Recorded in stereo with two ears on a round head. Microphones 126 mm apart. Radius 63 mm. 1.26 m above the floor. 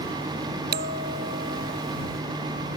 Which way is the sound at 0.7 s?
75° right (ahead or behind).